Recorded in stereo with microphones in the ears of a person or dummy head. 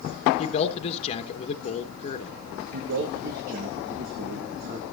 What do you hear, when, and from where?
0.4 s a man speaking: 30° left (ahead or behind), 1.1 m
2.7 s a man speaking: 50° right (ahead or behind), 1.5 m